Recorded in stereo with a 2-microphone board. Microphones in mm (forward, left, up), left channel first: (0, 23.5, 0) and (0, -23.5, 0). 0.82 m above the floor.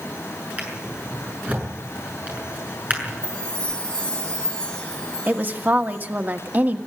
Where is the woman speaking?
40° right (ahead or behind), 1.5 m.